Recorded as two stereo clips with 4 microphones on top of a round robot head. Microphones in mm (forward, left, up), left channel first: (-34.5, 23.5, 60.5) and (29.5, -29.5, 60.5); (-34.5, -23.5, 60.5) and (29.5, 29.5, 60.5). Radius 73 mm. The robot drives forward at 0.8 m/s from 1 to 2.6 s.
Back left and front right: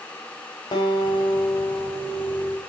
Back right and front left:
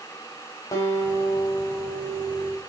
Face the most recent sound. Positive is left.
turn(degrees=175)